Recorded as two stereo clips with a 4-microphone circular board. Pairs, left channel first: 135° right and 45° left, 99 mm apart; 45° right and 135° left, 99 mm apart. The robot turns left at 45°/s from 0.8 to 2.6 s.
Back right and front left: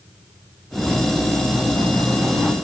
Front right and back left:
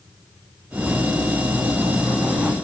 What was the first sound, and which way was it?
Only background noise.